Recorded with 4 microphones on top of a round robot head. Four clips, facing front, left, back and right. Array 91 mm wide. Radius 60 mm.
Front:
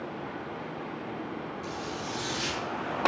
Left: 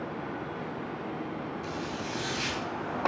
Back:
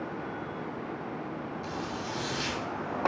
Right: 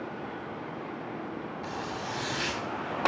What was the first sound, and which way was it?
A zipper, 110° right.